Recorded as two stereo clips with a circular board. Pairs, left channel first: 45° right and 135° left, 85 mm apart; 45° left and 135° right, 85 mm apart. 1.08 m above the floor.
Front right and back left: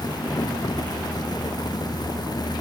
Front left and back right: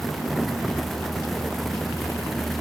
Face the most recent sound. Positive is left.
No sound to turn to.